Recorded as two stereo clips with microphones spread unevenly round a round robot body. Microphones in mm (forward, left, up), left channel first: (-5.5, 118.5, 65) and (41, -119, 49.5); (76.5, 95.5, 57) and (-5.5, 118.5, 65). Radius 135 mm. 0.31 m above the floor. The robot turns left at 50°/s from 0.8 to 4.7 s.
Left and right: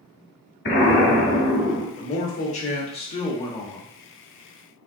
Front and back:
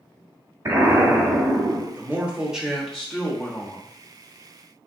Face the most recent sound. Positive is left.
turn(degrees=-25)